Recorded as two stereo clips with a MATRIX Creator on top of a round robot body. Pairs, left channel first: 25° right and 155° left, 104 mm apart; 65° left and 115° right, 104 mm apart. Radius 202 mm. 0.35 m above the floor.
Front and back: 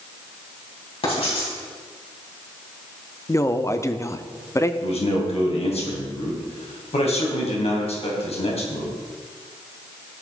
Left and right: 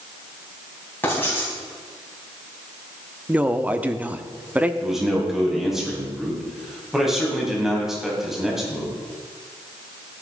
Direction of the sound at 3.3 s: 50° right.